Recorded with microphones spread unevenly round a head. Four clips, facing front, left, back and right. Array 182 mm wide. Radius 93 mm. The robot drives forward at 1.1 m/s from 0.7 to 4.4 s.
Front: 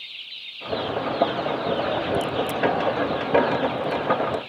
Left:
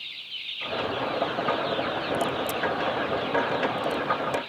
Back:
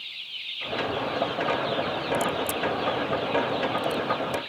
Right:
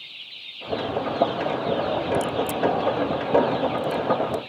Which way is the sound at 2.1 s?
100° right.